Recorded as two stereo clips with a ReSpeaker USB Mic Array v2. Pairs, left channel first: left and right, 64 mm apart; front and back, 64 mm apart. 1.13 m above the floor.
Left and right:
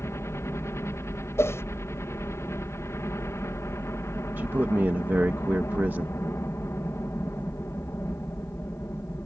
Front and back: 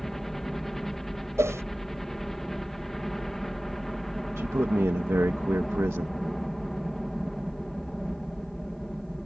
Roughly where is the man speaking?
Behind right.